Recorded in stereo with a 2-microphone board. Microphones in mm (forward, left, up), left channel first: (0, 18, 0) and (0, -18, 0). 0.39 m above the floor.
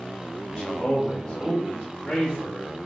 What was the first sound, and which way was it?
A man speaking, 20° left (ahead or behind).